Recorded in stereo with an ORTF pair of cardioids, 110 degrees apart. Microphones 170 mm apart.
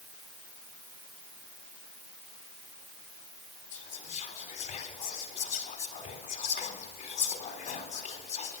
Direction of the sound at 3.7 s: 50° left.